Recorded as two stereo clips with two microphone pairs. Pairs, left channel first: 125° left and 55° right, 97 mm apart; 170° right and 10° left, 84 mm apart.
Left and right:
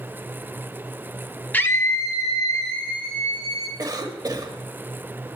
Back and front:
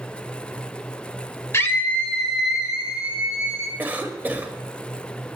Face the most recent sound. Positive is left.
turn(degrees=-45)